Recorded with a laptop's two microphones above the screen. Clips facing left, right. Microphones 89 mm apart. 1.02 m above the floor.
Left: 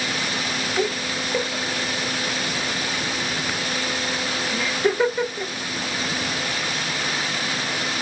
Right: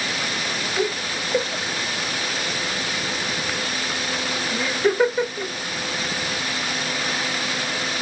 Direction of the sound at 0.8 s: 5° right (ahead or behind).